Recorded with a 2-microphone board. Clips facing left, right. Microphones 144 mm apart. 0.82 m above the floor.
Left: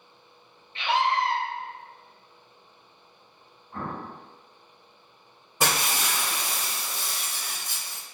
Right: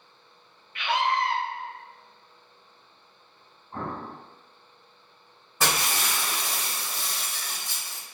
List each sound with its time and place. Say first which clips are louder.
0.8 s a scream: left 1 dB; 30° left (ahead or behind), 0.6 m
3.7 s an explosion: right 1 dB; 25° right (ahead or behind), 2.0 m
5.6 s breaking glass: left 1 dB; 20° left (ahead or behind), 1.4 m